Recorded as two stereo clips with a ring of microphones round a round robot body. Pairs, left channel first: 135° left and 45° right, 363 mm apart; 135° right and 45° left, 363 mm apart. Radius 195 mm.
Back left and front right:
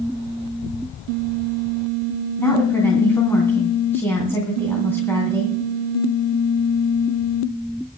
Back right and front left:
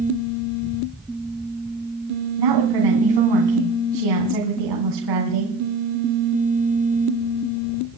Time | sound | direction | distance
2.4 | a woman speaking | 50° left | 3 m